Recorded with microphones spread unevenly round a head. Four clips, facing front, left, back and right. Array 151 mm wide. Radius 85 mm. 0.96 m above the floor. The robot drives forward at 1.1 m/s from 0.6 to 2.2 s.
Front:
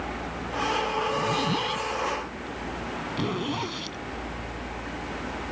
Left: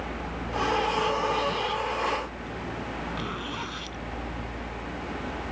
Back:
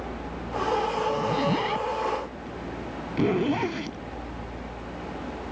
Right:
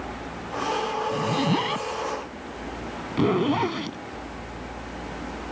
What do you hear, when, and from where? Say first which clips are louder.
1.1 s a zipper: right 2 dB, back 1 dB; 105° right; by 4.0 s 125° right